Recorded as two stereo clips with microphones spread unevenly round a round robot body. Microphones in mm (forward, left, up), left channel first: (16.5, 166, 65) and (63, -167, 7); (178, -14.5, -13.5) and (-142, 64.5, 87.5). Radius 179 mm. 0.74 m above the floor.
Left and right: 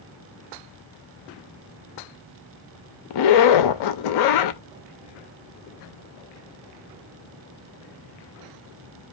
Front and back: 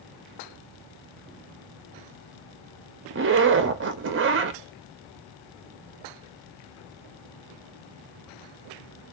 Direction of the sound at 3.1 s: 105° left.